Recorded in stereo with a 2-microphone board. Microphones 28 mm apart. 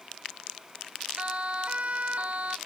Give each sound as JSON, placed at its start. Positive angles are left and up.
{"t": 1.2, "sound": "a siren", "side_deg": -40}